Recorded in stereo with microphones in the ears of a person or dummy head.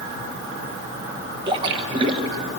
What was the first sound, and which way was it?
A splash, 30° right (ahead or behind).